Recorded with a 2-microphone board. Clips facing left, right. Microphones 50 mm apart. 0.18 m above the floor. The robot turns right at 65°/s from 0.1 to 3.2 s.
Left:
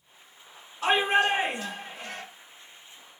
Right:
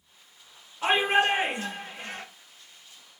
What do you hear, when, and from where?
0.8 s a shout: 135° right, 1.9 m; by 2.2 s 45° right, 1.9 m